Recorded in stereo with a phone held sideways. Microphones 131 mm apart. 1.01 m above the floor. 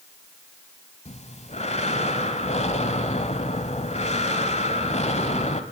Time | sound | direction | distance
1.1 | breathing | 60° left (ahead or behind) | 1.4 m